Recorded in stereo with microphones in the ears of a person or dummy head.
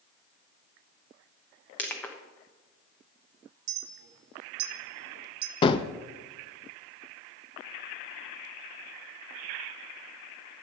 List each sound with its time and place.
1.8 s crushing: 15° left (ahead or behind), 1.0 m
3.7 s a clink: 70° right (ahead or behind), 1.7 m
5.6 s a gunshot: 30° left (ahead or behind), 0.5 m